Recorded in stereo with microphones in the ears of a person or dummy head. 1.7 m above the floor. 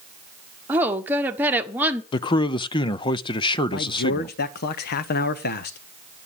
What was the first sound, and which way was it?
A woman speaking, 10° right (ahead or behind).